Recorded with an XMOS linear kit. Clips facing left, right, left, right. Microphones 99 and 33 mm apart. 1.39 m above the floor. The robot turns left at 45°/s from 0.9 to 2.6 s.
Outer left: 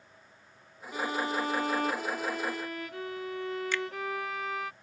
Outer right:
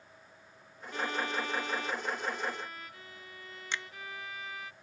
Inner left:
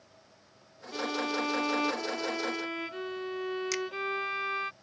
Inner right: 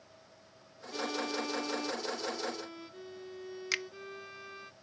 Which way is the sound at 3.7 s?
25° right (ahead or behind).